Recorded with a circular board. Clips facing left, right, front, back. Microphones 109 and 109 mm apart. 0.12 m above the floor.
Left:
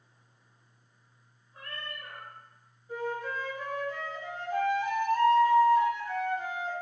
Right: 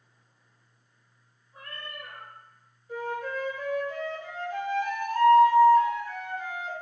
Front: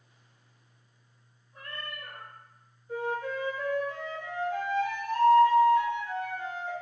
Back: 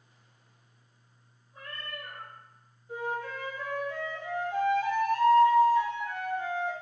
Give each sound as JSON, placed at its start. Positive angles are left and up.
{"t": 1.5, "sound": "a cat meowing", "azimuth_deg": -20, "distance_m": 1.1}
{"t": 2.9, "sound": "a flute", "azimuth_deg": 130, "distance_m": 1.7}